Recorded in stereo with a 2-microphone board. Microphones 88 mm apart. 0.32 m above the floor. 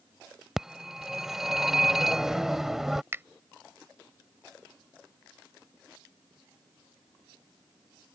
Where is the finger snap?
30° right (ahead or behind).